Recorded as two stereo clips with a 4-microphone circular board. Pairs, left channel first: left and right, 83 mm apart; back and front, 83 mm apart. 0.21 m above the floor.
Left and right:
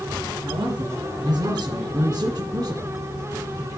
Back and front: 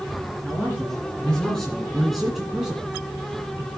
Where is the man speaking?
110° right, 3 m; by 3.7 s 65° right, 2.5 m.